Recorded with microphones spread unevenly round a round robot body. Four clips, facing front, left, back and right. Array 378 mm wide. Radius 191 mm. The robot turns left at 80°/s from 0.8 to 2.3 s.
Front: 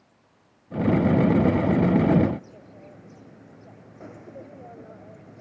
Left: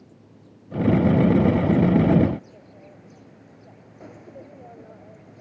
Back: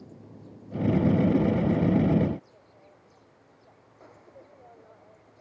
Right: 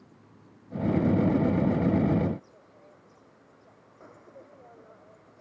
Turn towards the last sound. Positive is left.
turn(degrees=40)